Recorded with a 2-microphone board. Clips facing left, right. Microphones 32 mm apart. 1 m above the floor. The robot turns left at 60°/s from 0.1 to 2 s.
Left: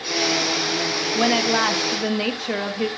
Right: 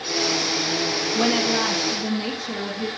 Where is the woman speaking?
165° left, 1.6 m; by 2.9 s 115° left, 1.6 m.